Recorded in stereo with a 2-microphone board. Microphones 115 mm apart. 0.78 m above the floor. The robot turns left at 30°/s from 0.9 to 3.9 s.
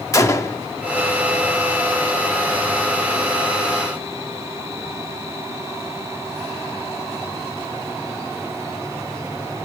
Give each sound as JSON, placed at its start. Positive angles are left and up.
{"t": 0.1, "sound": "a gunshot", "side_deg": 25, "distance_m": 1.0}